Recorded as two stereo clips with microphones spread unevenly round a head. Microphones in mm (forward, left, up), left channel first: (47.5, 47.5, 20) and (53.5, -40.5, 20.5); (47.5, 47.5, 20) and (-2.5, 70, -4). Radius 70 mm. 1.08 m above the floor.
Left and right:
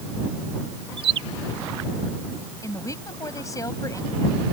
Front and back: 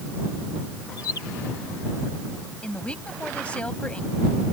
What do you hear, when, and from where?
1.0 s a bird: 90° right
2.6 s a woman speaking: 40° left